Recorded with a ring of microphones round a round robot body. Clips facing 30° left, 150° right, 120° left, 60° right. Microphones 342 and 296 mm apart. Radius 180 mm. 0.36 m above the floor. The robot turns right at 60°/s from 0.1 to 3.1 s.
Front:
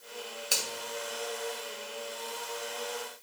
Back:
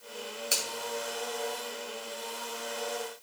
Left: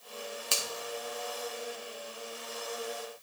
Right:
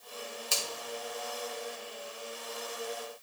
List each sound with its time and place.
0.5 s a finger snap: 120° left, 1.7 m; by 0.7 s 130° left, 1.7 m